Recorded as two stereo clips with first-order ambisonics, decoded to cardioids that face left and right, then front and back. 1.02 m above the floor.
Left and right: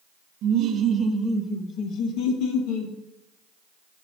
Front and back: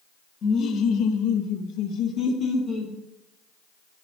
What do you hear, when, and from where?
0.4 s laughter: 50° right, 1.1 m; by 2.9 s 70° left, 1.5 m